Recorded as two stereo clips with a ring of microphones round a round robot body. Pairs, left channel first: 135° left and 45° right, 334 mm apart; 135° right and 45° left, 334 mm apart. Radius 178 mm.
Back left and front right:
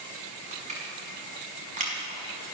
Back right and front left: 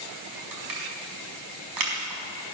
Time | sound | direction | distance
0.5 | crushing | 25° left | 5.5 m